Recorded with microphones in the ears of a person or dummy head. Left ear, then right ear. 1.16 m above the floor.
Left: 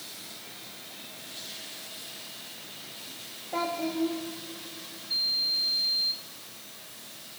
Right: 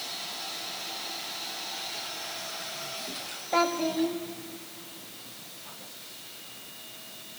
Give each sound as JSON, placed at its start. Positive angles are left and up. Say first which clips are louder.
{"t": 3.5, "sound": "a child speaking", "louder": "right 5 dB", "side_deg": -75, "distance_m": 1.5}